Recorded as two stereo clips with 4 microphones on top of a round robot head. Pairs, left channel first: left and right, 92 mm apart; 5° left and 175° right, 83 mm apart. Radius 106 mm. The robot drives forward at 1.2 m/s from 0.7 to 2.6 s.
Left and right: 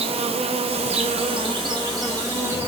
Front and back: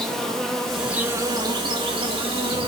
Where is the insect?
80° right, 1.0 m; by 2.7 s 155° right, 2.5 m.